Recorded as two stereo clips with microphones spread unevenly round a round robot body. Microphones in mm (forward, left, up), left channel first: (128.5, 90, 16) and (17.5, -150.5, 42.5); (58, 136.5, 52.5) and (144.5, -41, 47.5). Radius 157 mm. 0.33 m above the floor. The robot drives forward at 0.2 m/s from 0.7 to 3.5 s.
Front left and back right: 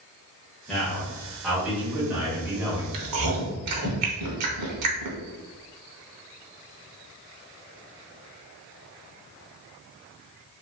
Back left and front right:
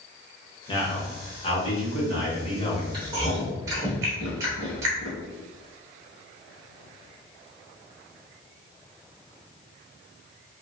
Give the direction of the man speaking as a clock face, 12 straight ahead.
7 o'clock.